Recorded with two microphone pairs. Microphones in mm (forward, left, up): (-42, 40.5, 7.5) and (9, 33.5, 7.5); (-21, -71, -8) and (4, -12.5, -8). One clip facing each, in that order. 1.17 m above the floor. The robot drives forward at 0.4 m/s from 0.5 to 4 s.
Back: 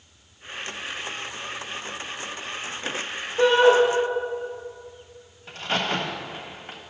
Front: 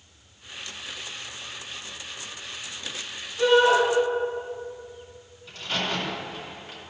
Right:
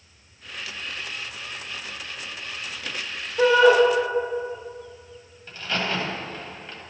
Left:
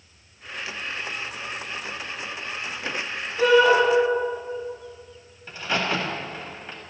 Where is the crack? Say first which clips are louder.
Back 3 dB, left 2 dB; 140° left, 1.5 m.